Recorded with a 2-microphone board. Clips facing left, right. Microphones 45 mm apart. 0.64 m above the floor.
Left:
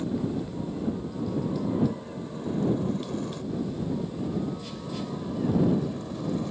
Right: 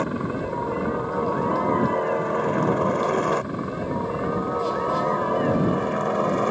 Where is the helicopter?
60° right (ahead or behind).